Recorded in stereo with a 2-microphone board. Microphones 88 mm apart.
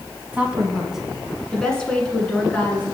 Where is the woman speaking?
15° right (ahead or behind), 1.1 m; by 2.9 s 20° left (ahead or behind), 2 m.